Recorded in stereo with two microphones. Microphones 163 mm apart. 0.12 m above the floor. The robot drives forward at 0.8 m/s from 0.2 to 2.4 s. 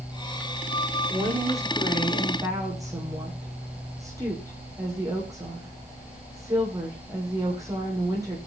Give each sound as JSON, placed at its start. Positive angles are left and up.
{"t": 1.1, "sound": "a woman speaking", "side_deg": -25, "distance_m": 7.0}